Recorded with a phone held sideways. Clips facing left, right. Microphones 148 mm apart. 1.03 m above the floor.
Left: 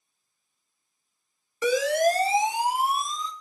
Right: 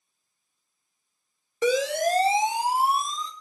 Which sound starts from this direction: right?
A siren, at 1.6 s.